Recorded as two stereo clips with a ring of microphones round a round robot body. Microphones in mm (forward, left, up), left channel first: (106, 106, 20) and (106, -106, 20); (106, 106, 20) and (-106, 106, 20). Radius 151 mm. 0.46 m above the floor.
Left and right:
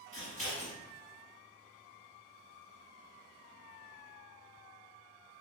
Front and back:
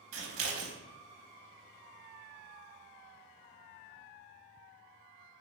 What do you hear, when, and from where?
0.1 s scissors: 160° left, 0.6 m